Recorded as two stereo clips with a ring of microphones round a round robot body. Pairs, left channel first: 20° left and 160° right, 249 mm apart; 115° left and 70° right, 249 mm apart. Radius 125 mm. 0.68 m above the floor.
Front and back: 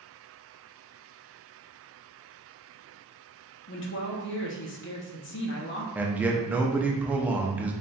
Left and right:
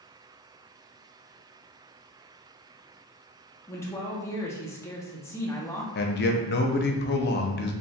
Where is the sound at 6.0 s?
120° left, 0.5 m.